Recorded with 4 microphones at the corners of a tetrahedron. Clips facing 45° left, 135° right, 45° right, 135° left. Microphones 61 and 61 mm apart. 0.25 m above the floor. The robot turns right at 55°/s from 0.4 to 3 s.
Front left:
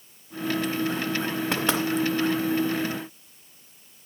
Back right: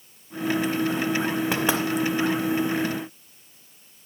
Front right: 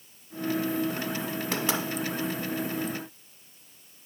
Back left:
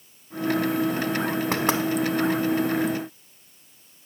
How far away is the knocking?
About 0.9 m.